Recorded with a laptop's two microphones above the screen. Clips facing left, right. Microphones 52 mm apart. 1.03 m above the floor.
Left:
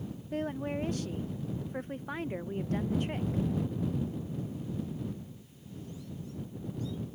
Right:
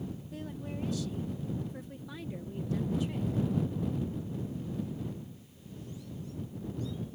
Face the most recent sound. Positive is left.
turn(degrees=50)  # may be behind; listen again after turning